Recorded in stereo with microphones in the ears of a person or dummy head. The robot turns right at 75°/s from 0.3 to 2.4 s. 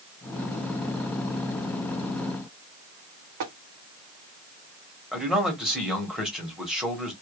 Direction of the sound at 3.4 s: 55° right (ahead or behind).